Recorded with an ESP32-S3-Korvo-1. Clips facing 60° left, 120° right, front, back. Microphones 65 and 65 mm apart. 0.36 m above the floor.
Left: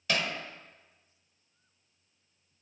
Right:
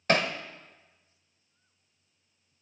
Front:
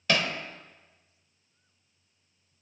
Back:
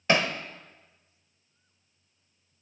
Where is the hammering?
125° right, 0.8 m.